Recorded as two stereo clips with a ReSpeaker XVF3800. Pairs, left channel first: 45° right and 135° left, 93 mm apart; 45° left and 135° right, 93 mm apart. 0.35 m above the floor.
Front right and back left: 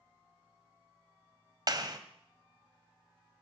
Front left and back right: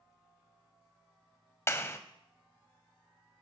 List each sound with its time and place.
1.7 s a clap: 100° left, 1.2 m